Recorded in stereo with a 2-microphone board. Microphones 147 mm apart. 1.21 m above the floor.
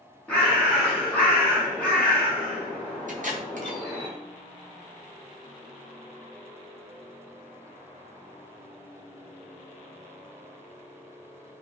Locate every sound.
0.3 s a bird: 10° left (ahead or behind), 1.7 m
3.1 s tape being pulled: 60° right (ahead or behind), 0.6 m